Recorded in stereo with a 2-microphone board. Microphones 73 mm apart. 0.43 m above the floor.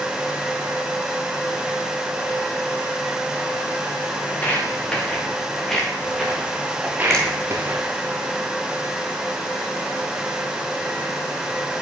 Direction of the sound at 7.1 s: 10° left (ahead or behind).